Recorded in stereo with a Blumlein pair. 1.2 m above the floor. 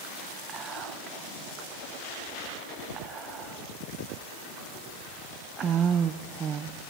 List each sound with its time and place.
0.5 s whispering: 25° right, 0.5 m